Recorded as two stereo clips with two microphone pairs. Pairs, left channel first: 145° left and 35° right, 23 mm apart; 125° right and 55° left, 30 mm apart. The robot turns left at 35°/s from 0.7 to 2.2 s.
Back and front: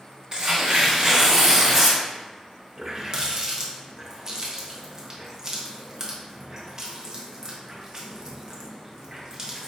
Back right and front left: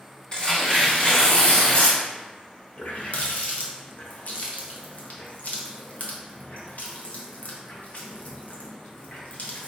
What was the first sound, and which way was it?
Tearing paper, 75° right.